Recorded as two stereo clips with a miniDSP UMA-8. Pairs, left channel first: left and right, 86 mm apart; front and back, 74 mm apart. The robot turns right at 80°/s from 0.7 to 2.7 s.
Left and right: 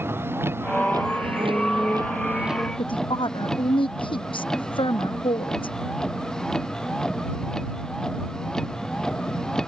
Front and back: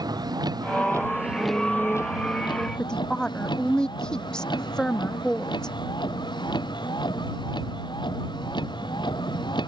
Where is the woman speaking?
80° left.